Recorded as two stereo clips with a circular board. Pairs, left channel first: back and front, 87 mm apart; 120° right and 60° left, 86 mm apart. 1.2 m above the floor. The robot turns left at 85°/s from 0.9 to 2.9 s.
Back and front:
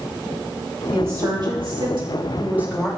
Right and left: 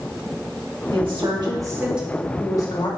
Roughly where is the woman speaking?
Left.